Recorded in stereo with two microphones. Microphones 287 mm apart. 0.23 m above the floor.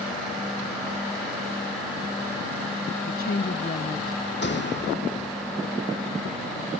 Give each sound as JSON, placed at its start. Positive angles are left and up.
{"t": 3.0, "sound": "a woman speaking", "side_deg": 50}
{"t": 4.4, "sound": "a door slam", "side_deg": 40}